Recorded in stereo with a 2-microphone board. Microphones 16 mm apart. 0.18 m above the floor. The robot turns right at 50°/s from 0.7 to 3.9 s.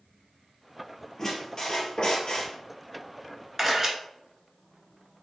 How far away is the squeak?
About 1.6 m.